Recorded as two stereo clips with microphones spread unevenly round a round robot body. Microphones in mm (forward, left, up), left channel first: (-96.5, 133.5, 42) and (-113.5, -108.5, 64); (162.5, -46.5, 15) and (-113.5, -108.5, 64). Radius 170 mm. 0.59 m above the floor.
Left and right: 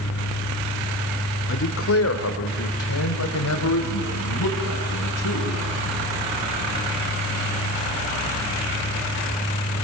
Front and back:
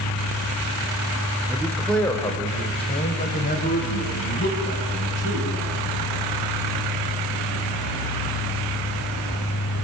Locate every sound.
1.5 s a man speaking: 105° left, 2.0 m; by 6.1 s 65° left, 5.5 m